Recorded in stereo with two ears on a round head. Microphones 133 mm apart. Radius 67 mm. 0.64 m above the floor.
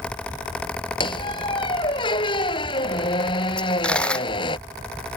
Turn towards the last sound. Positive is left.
turn(degrees=5)  # may be behind; listen again after turning